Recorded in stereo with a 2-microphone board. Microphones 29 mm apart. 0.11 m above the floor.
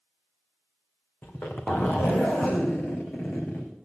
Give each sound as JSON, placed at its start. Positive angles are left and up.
{"t": 1.2, "sound": "a zipper", "side_deg": 85, "distance_m": 2.5}